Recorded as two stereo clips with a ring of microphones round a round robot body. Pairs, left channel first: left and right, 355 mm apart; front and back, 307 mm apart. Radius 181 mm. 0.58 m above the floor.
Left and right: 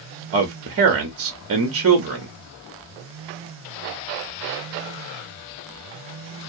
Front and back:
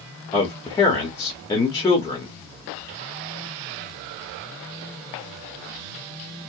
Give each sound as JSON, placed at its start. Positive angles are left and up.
{"t": 0.3, "sound": "a man speaking", "azimuth_deg": -75, "distance_m": 1.0}